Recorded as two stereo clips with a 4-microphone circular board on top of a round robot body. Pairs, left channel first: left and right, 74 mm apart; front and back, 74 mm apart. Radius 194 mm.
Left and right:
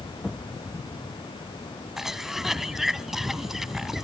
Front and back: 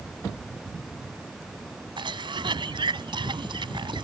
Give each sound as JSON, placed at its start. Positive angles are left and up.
{"t": 2.0, "sound": "a cough", "azimuth_deg": -175}